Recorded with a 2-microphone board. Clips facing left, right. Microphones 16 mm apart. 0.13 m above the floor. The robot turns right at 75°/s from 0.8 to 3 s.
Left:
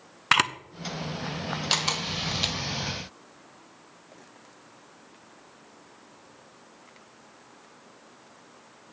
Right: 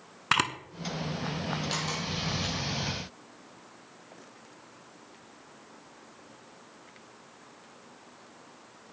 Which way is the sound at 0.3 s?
20° left (ahead or behind).